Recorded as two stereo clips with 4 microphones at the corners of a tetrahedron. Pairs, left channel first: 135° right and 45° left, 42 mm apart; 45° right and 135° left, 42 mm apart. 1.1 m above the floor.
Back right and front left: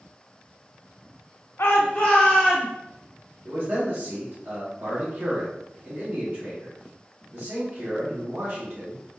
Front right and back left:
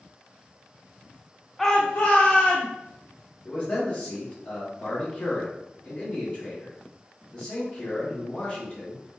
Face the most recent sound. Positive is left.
turn(degrees=5)